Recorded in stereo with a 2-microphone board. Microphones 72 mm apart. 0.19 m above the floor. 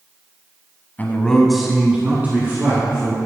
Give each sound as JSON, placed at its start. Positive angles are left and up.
{"t": 1.0, "sound": "a man speaking", "side_deg": 25, "distance_m": 1.1}